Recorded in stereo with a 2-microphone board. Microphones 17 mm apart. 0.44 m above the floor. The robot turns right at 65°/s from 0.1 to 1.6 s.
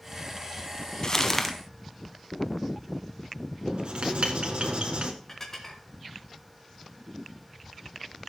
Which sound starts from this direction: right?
Writing, at 3.7 s.